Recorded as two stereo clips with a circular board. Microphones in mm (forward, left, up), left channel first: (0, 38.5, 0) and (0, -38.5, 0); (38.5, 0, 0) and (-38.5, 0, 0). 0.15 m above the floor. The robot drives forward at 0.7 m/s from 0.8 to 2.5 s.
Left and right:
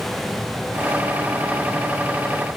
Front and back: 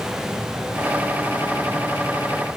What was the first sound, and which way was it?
Only background noise.